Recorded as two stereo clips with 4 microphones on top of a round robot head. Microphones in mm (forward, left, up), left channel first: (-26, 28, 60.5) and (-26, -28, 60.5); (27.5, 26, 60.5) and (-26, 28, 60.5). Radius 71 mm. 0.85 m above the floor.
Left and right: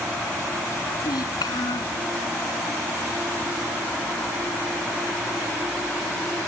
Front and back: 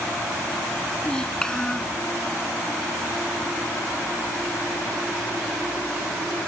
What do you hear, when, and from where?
1.0 s a child speaking: 75° left